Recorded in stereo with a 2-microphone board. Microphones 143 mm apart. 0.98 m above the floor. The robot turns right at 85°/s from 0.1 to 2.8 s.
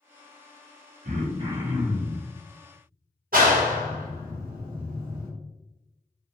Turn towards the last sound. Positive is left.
turn(degrees=-85)